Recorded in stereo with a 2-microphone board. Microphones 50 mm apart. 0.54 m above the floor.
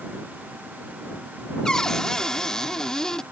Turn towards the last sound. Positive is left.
turn(degrees=15)  # may be behind; listen again after turning